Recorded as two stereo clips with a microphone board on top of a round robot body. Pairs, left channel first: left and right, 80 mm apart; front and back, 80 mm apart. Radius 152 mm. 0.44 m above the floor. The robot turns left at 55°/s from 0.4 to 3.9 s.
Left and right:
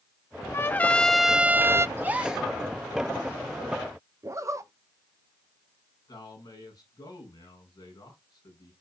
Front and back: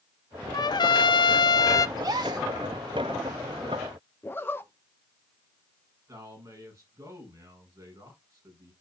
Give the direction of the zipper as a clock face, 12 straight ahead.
2 o'clock.